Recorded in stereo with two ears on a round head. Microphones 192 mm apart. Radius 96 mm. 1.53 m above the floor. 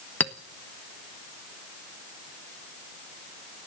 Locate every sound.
0.2 s a clink: 10° left (ahead or behind), 1.1 m